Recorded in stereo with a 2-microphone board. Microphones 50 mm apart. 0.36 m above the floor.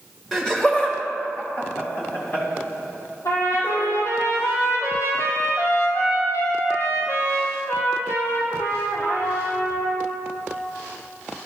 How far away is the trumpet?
About 1.9 m.